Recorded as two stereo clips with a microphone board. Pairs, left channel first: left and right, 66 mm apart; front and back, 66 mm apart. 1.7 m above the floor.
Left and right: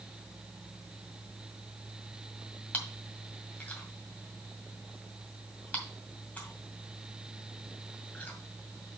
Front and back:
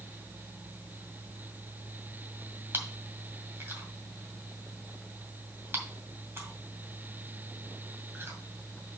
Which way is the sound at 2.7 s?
145° left.